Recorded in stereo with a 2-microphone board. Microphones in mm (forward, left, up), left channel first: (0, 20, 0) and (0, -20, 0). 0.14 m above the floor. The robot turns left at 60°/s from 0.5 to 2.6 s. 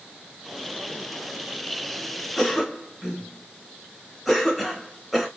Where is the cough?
10° left (ahead or behind), 1.6 m; by 5.3 s centre (ahead or behind), 1.6 m.